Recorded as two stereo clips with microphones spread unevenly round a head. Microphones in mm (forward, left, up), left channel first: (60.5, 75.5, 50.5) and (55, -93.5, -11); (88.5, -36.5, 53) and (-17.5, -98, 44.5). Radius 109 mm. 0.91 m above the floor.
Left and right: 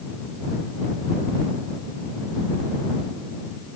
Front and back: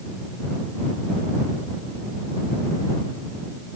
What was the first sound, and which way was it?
Only background noise.